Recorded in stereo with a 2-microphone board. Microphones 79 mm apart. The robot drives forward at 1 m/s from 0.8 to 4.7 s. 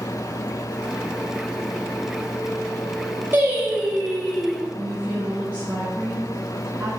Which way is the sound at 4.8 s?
30° right (ahead or behind).